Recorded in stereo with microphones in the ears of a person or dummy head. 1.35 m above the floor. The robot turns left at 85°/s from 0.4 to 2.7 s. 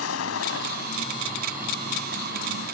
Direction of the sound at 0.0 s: 90° left.